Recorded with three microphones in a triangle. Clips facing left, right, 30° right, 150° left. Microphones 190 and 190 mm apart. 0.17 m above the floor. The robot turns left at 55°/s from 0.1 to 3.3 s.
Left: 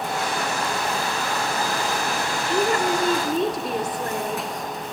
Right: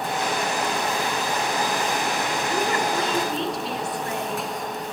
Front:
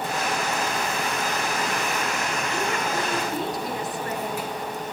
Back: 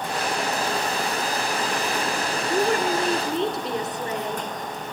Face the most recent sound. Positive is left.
turn(degrees=95)